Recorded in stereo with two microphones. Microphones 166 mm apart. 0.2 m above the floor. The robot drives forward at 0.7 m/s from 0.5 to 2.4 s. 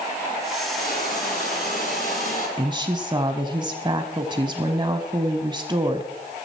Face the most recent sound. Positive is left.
turn(degrees=-25)  # may be behind; listen again after turning